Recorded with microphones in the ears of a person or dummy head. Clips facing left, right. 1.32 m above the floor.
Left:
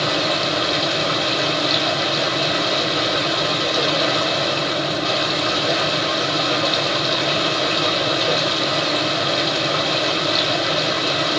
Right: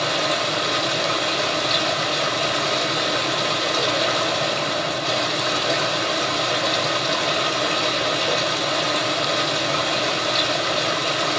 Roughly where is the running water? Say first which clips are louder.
Left 2 dB; centre.